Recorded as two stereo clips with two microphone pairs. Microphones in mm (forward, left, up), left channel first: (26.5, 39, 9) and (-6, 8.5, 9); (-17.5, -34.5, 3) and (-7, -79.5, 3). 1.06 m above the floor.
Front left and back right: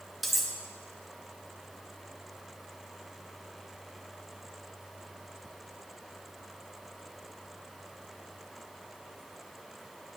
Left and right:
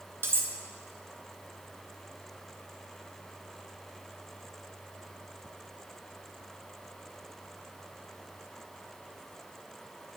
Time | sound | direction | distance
0.2 | cutlery clinking | 45° right | 0.8 m